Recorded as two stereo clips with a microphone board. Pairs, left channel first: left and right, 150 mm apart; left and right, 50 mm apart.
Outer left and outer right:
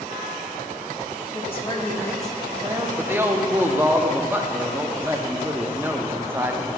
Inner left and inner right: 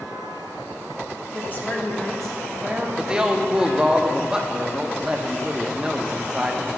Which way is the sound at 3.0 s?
15° right (ahead or behind).